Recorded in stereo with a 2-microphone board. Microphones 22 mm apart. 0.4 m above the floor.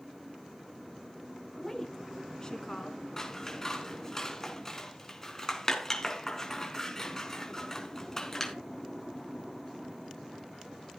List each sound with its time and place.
1.6 s a woman speaking: 15° left (ahead or behind), 3.5 m; by 3.0 s 35° left (ahead or behind), 4.5 m
3.2 s scissors: 20° left (ahead or behind), 4 m